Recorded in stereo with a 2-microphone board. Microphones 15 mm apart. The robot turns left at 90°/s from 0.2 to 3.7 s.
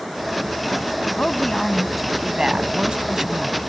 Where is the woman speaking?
60° left; by 3.6 s 160° right.